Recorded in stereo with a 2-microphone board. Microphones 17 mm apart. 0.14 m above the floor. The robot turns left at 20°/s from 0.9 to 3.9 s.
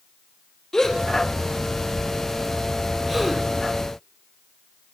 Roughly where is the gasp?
Left.